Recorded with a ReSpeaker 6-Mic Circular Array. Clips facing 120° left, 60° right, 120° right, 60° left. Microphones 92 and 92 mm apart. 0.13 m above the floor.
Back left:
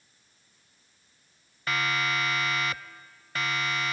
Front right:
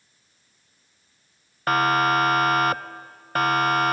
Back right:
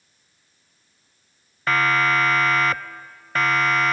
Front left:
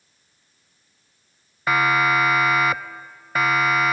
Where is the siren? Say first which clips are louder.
Front right 9 dB, front left 1 dB; 20° right; by 3.9 s 25° right.